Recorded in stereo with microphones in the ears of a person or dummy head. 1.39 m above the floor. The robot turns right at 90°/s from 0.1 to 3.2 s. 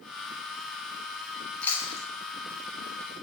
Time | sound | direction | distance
1.6 | chewing | 5° left (ahead or behind) | 2.5 m